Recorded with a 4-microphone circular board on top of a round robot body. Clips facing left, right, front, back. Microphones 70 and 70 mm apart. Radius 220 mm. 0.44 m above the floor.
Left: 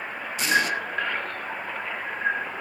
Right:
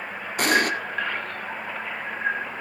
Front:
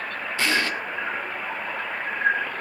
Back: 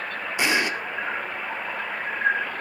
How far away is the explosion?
About 2.5 m.